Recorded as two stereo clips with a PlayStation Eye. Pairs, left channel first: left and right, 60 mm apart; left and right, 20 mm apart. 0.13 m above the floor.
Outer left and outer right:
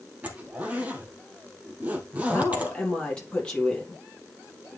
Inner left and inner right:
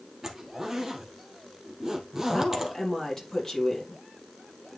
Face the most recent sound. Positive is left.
turn(degrees=20)  # may be behind; listen again after turning